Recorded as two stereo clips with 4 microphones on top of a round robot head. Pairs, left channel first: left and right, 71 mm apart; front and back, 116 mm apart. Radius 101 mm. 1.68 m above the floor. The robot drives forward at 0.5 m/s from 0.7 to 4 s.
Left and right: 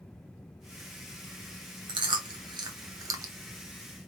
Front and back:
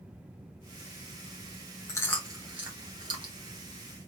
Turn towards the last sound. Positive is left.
turn(degrees=-140)